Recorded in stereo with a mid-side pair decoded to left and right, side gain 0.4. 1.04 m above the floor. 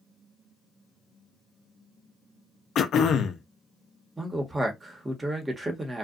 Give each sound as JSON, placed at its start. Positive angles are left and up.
{"t": 2.8, "sound": "throat clearing", "azimuth_deg": 65, "distance_m": 0.5}
{"t": 4.2, "sound": "a man speaking", "azimuth_deg": -25, "distance_m": 1.2}